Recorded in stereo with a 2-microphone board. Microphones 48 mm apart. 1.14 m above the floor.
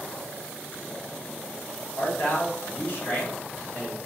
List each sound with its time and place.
2.0 s a man speaking: 40° left (ahead or behind), 1.0 m; by 4.0 s 35° left (ahead or behind), 1.0 m